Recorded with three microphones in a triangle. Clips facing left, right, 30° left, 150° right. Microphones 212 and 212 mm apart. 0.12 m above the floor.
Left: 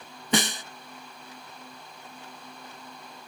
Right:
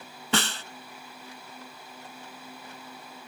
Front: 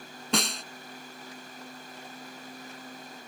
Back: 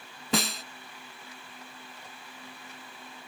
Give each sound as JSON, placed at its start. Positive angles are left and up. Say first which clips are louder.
{"t": 0.3, "sound": "a snare drum", "louder": "left 3 dB, back 1 dB", "azimuth_deg": 125}